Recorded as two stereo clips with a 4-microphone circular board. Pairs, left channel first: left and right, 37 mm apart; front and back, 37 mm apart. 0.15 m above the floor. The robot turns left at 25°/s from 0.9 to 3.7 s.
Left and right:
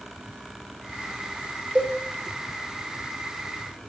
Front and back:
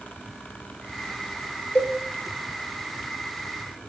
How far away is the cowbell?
About 2.5 m.